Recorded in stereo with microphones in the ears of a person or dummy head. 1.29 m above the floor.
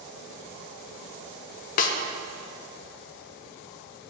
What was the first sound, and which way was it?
A snare drum, 45° left (ahead or behind).